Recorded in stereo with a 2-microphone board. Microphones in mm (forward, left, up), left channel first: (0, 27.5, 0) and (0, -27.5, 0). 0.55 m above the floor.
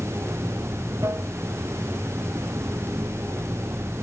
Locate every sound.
0.0 s running water: 55° right (ahead or behind)